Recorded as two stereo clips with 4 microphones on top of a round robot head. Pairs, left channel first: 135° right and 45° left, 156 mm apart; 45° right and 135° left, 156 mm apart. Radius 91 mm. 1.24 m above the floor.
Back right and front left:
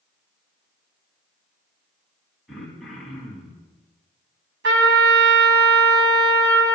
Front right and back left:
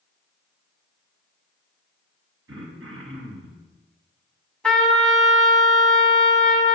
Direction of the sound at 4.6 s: 40° left.